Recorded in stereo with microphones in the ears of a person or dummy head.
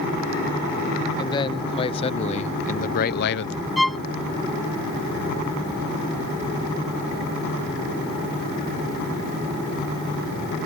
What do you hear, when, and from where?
1.2 s a man speaking: 25° left (ahead or behind); by 3.5 s 65° left (ahead or behind)
3.8 s a violin: centre (ahead or behind)